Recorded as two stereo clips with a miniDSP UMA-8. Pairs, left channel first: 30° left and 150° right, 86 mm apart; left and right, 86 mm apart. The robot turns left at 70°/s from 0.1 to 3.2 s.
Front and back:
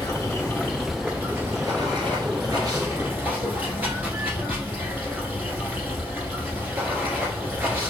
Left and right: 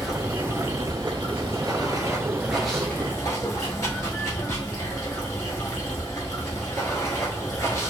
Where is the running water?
Straight ahead, 1.3 m; by 7.9 s 140° left, 1.3 m.